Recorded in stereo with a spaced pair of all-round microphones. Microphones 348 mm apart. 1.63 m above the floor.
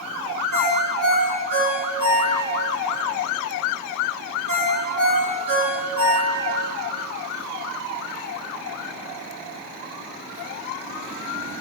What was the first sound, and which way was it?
A ringtone, 70° right (ahead or behind).